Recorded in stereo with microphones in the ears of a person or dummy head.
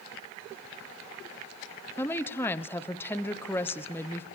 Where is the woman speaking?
5° left (ahead or behind), 0.9 m.